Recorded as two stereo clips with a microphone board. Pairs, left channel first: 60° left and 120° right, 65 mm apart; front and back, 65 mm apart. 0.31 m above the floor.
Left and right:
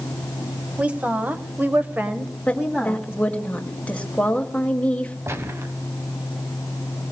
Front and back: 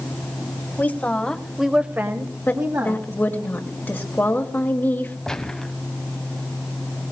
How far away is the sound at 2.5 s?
About 1.5 m.